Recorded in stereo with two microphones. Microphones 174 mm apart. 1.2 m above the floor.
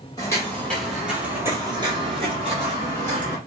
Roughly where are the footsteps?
Centre.